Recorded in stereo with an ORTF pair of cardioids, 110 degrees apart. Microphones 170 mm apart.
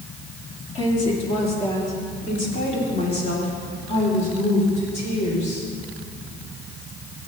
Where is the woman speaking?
35° left, 3 m; by 5.7 s 45° left, 5.5 m.